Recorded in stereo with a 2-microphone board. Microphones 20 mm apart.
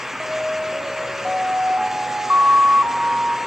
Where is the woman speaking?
No woman speaking in this recording.